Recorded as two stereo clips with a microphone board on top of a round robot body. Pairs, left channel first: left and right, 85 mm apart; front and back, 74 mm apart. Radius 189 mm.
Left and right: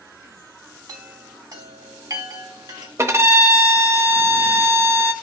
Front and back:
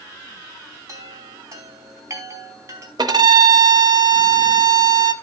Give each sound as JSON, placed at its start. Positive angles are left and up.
{"t": 0.9, "sound": "a chime", "azimuth_deg": -130, "distance_m": 3.0}
{"t": 3.0, "sound": "a violin", "azimuth_deg": -150, "distance_m": 0.9}